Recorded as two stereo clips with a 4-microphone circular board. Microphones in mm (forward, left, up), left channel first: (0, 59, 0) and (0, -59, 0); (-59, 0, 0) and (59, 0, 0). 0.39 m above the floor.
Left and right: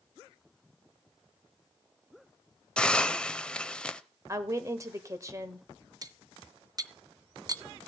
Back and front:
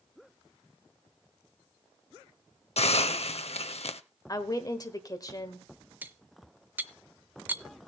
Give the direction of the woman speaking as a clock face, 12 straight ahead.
5 o'clock.